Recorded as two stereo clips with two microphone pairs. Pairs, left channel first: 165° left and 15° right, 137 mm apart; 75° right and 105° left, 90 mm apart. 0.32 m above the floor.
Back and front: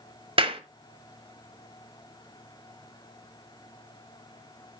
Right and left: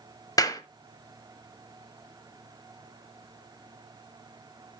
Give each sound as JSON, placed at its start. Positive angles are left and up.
{"t": 0.4, "sound": "a clap", "azimuth_deg": -45, "distance_m": 1.1}